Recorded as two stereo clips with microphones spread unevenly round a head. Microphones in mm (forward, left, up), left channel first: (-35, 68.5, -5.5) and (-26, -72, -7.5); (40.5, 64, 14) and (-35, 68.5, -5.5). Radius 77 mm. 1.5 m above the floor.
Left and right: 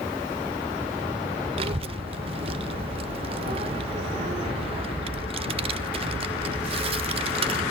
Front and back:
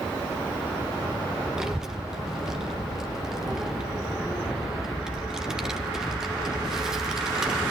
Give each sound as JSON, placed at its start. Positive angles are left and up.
{"t": 1.6, "sound": "a child speaking", "azimuth_deg": -80, "distance_m": 0.7}